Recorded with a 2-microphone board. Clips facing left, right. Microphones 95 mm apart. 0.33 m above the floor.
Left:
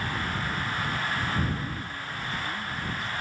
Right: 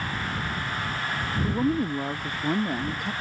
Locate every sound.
1.4 s a woman speaking: 55° right (ahead or behind); by 3.1 s 60° right (ahead or behind)